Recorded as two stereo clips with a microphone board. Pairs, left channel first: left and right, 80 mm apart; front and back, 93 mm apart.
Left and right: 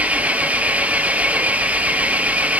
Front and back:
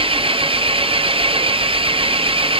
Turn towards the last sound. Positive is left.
turn(degrees=-165)